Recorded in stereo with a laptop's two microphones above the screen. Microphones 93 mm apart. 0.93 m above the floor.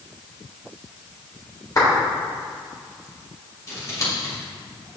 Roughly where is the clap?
Left.